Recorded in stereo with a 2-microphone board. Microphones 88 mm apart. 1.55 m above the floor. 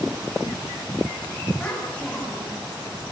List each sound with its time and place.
1.6 s a child speaking: 10° left (ahead or behind), 6.5 m